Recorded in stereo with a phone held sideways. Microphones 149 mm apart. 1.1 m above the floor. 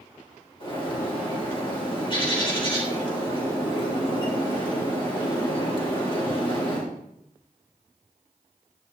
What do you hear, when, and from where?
0.6 s a bird: 35° left (ahead or behind), 4 m